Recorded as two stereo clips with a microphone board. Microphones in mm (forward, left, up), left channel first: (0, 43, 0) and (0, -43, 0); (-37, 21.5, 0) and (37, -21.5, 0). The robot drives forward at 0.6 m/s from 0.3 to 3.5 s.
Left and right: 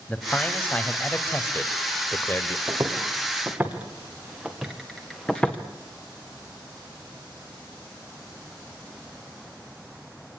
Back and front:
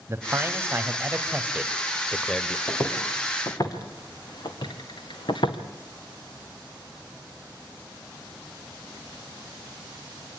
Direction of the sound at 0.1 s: 20° left.